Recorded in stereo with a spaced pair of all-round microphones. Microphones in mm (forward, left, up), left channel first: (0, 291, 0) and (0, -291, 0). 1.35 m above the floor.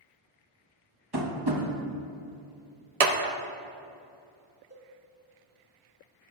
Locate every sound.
1.1 s tapping: 40° right (ahead or behind), 1.1 m
3.0 s a clap: 85° right, 0.8 m
4.7 s a cowbell: 25° right (ahead or behind), 2 m